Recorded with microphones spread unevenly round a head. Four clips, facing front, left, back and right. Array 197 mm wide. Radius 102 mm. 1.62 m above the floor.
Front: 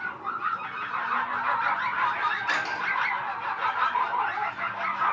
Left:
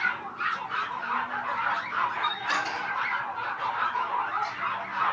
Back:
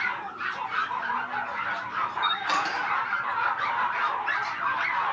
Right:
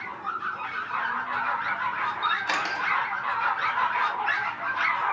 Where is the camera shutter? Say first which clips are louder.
Right 2 dB, back 1 dB; 120° right, 1.2 m.